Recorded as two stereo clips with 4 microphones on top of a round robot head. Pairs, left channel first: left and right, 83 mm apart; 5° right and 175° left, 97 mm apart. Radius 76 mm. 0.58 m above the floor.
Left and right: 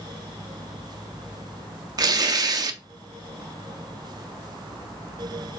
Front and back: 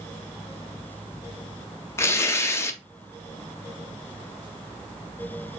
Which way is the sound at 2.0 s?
60° right.